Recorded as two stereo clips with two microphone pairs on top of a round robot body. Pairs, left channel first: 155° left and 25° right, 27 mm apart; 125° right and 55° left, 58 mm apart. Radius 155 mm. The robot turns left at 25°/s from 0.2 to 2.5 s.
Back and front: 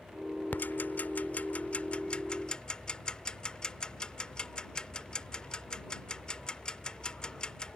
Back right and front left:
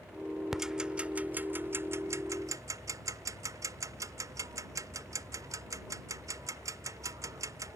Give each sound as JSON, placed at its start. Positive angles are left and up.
{"t": 0.5, "sound": "ticking", "azimuth_deg": 135}